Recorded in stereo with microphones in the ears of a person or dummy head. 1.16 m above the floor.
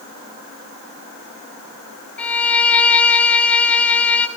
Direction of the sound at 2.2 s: 5° left (ahead or behind).